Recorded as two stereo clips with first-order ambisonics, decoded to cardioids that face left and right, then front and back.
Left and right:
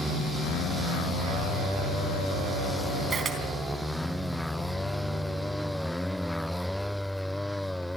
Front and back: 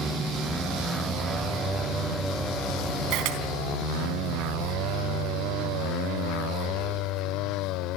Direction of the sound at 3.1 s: 155° right.